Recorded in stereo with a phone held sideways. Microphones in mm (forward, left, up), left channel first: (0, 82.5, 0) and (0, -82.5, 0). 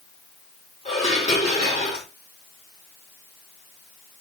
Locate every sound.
0.8 s dishes clattering: 45° left (ahead or behind), 3.5 m